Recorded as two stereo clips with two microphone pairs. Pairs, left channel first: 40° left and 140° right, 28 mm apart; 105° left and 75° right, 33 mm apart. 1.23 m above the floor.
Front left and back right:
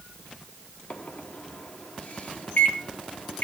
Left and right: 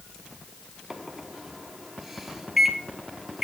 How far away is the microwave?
About 0.9 m.